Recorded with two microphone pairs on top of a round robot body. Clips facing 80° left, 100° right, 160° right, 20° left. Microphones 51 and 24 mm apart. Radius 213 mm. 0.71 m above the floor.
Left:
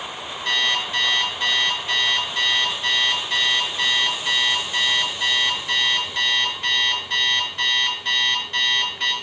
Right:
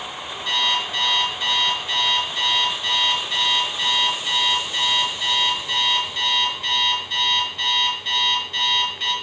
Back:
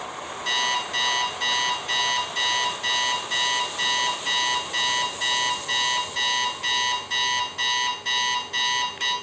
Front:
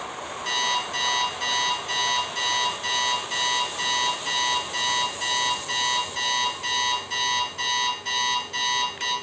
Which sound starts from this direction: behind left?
An alarm clock, at 0.5 s.